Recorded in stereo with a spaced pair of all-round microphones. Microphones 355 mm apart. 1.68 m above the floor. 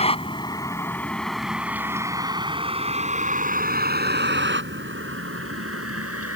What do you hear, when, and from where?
0.0 s a vehicle: 15° left (ahead or behind); by 6.4 s 40° right (ahead or behind)